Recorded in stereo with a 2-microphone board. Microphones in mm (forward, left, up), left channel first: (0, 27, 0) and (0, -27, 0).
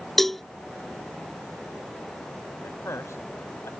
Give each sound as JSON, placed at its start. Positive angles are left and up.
{"t": 0.2, "sound": "a cowbell", "side_deg": 5}
{"t": 2.6, "sound": "a man speaking", "side_deg": 55}